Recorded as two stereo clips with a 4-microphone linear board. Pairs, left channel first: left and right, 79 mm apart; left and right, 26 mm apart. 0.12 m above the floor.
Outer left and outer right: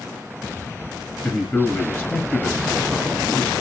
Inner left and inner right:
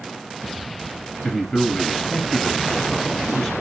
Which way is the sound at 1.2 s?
10° left (ahead or behind).